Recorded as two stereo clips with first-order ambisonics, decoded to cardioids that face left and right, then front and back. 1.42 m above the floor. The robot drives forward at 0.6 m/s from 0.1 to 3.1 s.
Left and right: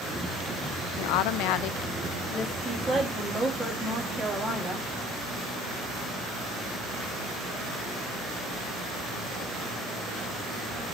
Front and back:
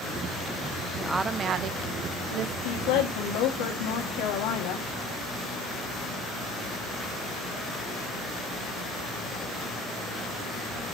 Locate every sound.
1.0 s a woman speaking: 90° left, 0.5 m; by 2.5 s 150° left, 1.1 m
2.6 s a woman speaking: straight ahead, 2.5 m